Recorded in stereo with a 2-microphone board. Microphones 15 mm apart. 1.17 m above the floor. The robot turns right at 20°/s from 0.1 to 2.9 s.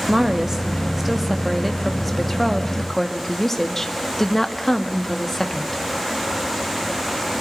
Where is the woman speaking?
35° right, 1.8 m; by 5.8 s 20° left, 1.8 m.